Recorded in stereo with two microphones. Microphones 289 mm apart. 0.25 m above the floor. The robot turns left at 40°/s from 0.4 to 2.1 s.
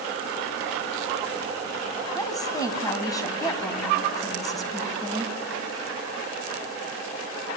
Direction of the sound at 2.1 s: 10° left (ahead or behind).